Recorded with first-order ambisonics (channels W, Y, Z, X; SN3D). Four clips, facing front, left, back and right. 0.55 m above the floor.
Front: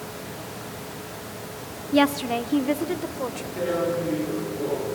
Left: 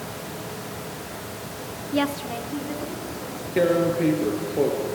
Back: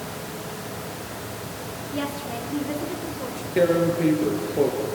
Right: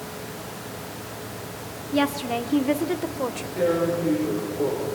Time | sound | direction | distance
1.9 | a woman speaking | 5° left | 0.7 m
3.6 | tearing paper | 135° left | 4.5 m